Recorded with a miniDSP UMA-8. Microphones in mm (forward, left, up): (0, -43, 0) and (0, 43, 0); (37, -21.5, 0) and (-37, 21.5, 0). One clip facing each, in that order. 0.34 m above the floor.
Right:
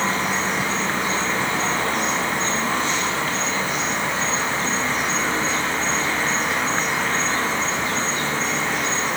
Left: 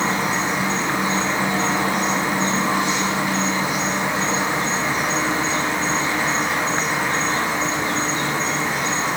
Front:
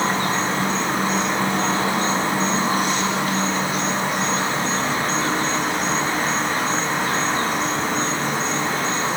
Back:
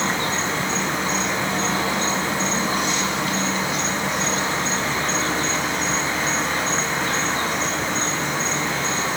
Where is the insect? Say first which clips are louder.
Left 1 dB, front 2 dB; 15° left, 1.0 m.